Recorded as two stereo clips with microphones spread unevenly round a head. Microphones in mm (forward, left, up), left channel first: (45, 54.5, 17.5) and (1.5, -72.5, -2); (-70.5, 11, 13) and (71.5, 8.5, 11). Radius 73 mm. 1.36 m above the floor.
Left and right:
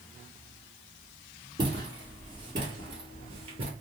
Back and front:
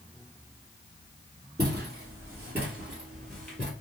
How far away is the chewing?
No chewing in this recording.